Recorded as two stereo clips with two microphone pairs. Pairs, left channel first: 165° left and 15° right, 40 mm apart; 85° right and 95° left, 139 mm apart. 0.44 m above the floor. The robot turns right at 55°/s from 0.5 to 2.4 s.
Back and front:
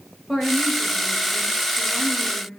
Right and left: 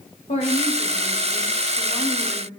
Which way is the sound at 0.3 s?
95° right.